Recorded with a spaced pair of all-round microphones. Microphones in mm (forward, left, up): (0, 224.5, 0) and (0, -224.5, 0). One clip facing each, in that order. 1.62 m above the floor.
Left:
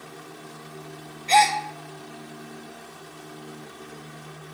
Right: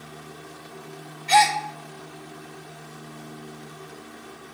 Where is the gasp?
30° right (ahead or behind), 0.7 m.